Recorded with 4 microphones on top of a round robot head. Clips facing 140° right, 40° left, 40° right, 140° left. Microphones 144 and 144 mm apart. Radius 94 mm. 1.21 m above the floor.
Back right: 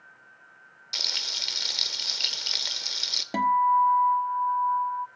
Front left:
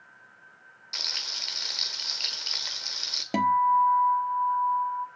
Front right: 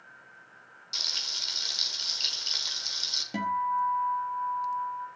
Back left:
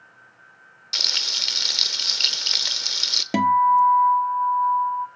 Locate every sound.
0.9 s frying: 160° left, 1.2 m
3.3 s a guitar: 120° left, 0.8 m